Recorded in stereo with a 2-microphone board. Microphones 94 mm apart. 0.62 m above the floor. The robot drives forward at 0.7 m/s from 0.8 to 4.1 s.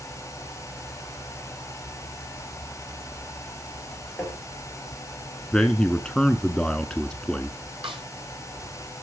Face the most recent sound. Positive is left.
turn(degrees=-70)  # may be behind; listen again after turning